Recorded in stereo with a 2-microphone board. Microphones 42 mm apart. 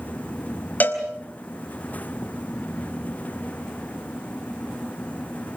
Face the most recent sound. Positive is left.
turn(degrees=40)  # may be behind; listen again after turning